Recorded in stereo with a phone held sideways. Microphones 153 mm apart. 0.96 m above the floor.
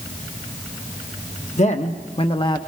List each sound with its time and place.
1.6 s a man speaking: 50° left (ahead or behind), 1.3 m; by 2.6 s 30° left (ahead or behind), 1.0 m